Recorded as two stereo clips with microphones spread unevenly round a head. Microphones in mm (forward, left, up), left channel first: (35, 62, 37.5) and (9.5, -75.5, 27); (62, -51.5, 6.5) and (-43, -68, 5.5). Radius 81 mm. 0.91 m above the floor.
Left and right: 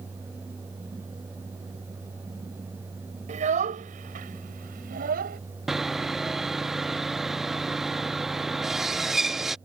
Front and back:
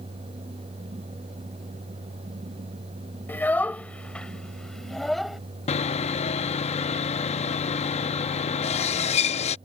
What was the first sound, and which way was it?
A child speaking, 65° right.